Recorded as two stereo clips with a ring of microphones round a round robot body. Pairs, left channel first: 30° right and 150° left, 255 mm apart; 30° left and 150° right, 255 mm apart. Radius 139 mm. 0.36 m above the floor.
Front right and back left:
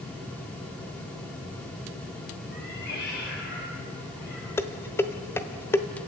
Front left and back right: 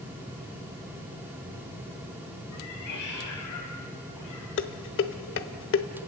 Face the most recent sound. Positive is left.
turn(degrees=50)